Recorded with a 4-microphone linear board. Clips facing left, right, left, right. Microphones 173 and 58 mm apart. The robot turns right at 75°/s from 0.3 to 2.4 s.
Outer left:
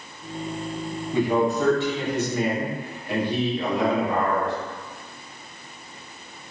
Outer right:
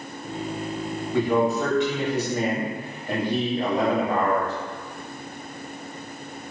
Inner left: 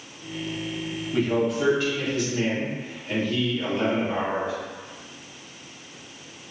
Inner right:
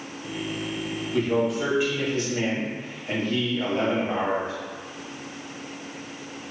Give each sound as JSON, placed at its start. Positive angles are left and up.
{"t": 1.1, "sound": "a man speaking", "azimuth_deg": 155, "distance_m": 0.8}